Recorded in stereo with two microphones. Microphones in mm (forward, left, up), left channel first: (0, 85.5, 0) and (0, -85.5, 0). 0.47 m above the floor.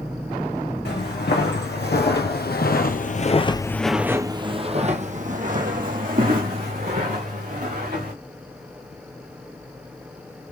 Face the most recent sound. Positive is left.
turn(degrees=-60)  # may be behind; listen again after turning